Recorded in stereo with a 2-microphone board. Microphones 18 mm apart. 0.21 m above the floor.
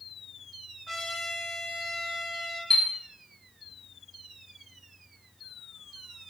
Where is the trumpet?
20° left (ahead or behind), 1.1 m.